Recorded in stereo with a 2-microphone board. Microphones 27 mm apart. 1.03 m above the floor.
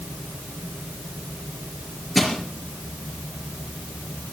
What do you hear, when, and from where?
2.1 s crushing: centre (ahead or behind), 4 m